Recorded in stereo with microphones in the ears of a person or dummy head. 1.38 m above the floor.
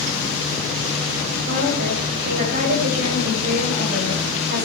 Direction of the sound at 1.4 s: 50° right (ahead or behind).